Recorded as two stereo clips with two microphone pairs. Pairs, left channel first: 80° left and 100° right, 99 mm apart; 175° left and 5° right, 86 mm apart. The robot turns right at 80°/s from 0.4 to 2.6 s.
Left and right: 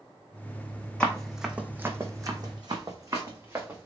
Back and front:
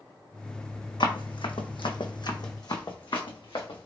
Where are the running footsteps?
155° left, 0.8 m; by 3.9 s 175° right, 1.3 m.